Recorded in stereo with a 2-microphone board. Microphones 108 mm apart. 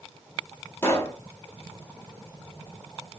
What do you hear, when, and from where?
0.8 s a pop: 25° left (ahead or behind), 0.9 m